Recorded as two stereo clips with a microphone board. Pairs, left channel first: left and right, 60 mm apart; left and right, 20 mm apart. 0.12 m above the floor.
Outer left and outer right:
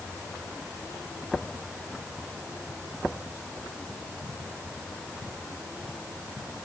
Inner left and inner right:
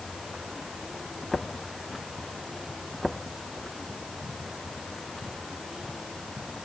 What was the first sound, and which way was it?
Only background noise.